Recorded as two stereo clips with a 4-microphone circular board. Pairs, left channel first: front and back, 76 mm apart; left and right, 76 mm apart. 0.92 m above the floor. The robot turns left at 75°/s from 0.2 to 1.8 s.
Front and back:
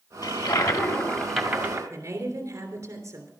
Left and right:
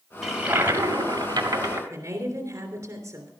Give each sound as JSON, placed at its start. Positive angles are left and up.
{"t": 0.2, "sound": "a toilet flushing", "azimuth_deg": 0, "distance_m": 1.7}
{"t": 1.9, "sound": "a woman speaking", "azimuth_deg": -135, "distance_m": 3.0}